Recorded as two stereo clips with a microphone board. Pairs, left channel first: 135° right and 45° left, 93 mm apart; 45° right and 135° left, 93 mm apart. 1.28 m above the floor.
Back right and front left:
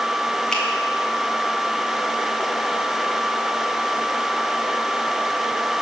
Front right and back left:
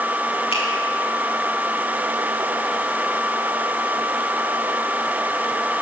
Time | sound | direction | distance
0.5 | a finger snap | 55° right | 2.5 m